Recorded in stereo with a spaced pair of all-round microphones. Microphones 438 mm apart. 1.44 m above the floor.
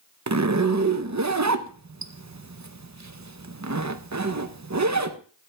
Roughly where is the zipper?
Right.